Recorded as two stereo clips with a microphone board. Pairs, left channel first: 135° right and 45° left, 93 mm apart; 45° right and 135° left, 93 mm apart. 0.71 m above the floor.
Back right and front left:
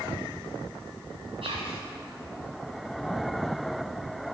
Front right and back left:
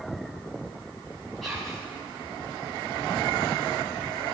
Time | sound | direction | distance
1.4 | whispering | 45° left | 5.5 m